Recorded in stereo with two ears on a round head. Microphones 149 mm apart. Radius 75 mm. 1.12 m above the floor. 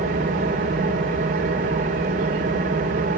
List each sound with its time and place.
0.0 s an engine running: 50° right (ahead or behind), 3 m